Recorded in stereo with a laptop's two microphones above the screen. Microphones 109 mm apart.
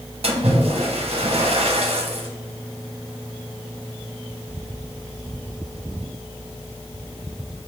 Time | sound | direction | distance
0.2 | a splash | 65° right (ahead or behind) | 1.2 m